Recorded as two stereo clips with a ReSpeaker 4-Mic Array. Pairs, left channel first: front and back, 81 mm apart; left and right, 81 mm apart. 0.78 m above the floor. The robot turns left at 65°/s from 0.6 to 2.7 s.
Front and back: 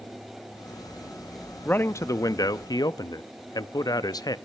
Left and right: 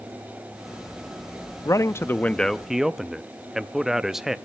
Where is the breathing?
I don't hear breathing.